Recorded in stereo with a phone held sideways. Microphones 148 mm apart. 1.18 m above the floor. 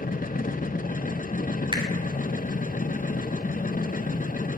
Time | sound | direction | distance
0.0 | a machine running | 65° left (ahead or behind) | 0.8 m
1.7 | a finger snap | 30° right (ahead or behind) | 3 m